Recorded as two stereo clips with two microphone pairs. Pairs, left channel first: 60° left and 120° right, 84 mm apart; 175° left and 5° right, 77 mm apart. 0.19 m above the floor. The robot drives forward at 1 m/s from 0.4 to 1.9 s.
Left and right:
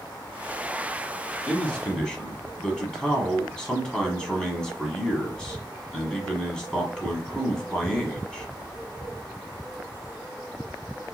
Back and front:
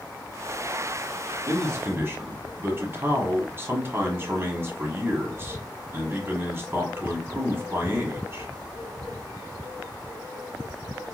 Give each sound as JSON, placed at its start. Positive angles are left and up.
{"t": 1.5, "sound": "a man speaking", "azimuth_deg": -10, "distance_m": 1.8}